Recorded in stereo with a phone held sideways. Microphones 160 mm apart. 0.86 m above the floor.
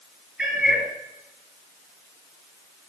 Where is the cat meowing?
5° right (ahead or behind), 4 m.